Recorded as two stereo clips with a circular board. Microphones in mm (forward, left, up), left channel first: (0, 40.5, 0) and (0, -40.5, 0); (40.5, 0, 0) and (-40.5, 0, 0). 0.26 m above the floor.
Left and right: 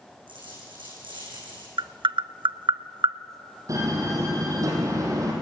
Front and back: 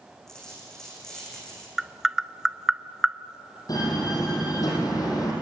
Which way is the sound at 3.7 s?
40° right.